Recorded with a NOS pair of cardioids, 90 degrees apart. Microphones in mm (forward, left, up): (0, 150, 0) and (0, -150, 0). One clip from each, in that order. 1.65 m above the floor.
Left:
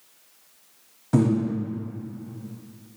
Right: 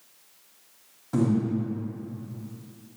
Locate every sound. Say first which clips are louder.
1.1 s breathing: left 3 dB; 35° left, 1.1 m